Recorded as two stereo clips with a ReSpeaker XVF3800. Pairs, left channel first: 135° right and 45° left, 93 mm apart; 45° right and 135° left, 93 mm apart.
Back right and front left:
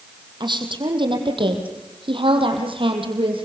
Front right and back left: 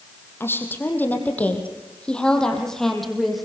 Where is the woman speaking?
20° left, 5.5 m; by 3.4 s 45° left, 6 m.